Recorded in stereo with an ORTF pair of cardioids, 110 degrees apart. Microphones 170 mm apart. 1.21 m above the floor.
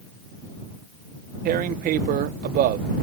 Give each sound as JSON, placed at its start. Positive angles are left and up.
{"t": 1.4, "sound": "tearing paper", "azimuth_deg": -65}